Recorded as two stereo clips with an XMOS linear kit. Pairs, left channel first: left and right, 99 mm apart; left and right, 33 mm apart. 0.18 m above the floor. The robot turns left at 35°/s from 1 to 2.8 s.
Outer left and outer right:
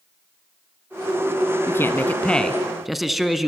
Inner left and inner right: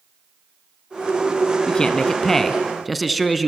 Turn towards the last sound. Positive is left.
turn(degrees=0)